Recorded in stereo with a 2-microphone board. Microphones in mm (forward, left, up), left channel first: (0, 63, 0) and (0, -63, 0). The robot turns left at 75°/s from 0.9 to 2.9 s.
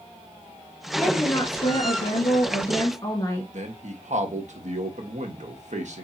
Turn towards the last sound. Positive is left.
turn(degrees=-70)  # may be behind; listen again after turning